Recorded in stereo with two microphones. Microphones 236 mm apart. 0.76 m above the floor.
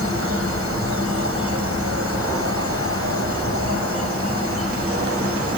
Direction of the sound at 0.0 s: 65° right (ahead or behind).